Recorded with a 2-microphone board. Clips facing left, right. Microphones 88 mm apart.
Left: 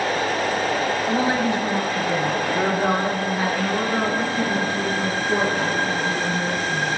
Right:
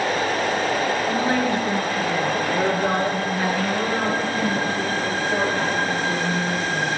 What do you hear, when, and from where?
1.1 s a woman speaking: 20° left (ahead or behind), 1.8 m; by 7.0 s 15° left (ahead or behind), 5.5 m